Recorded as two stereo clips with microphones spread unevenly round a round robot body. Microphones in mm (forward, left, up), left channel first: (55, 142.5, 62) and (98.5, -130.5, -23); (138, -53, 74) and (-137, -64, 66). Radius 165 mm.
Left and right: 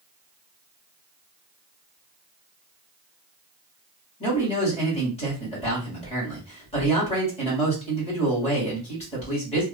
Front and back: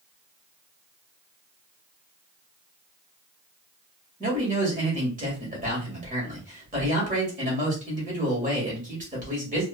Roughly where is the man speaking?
Behind.